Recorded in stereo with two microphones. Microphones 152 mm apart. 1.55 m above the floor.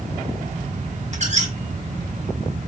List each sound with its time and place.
1.1 s a squeak: 50° right (ahead or behind), 1.5 m